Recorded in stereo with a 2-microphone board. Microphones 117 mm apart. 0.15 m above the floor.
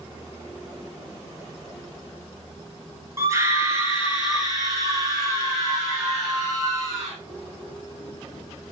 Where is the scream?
25° right (ahead or behind), 1.9 m; by 7.1 s 30° right (ahead or behind), 6.5 m.